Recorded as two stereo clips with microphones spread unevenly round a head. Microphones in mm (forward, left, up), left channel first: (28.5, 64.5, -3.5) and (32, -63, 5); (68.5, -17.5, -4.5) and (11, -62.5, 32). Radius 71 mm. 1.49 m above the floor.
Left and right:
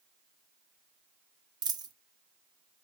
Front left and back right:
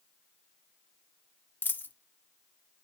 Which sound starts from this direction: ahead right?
A dropped coin, at 1.6 s.